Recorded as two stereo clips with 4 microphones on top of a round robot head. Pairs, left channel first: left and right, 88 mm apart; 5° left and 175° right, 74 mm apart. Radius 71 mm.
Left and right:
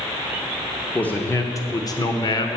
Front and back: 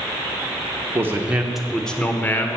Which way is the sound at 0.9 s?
155° left.